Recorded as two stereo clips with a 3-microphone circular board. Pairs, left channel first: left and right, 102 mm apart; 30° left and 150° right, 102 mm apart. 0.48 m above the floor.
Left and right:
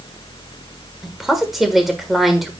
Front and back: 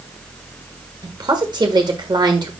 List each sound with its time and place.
1.0 s a woman speaking: straight behind, 1.4 m